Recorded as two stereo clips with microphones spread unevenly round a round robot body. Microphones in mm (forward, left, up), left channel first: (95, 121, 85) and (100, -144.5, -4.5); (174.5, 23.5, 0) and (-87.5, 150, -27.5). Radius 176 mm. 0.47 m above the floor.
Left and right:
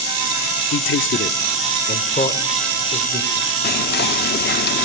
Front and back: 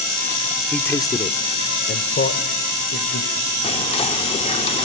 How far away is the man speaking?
About 0.9 m.